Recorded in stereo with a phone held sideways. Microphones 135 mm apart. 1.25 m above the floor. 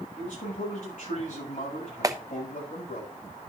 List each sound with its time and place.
0.2 s a man speaking: 90° left, 7.5 m
2.0 s a clap: 25° right (ahead or behind), 0.7 m